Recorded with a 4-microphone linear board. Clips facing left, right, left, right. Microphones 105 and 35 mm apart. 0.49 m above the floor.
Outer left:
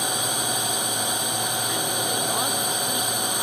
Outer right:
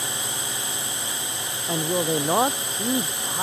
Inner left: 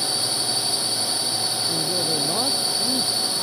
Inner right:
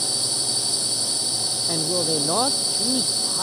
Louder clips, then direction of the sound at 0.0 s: Outer left 5 dB, inner left 2 dB; 20° left (ahead or behind).